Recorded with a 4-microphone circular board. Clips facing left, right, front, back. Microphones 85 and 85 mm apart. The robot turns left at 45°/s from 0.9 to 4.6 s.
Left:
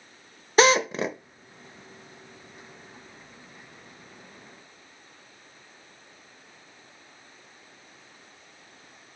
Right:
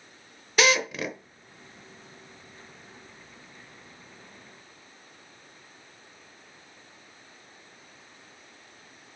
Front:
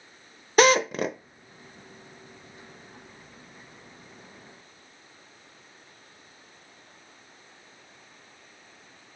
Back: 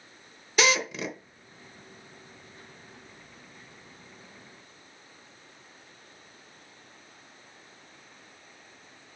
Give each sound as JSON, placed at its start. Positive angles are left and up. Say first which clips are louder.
{"t": 0.6, "sound": "a drill", "louder": "left 5 dB, front 7 dB", "azimuth_deg": 40, "distance_m": 0.9}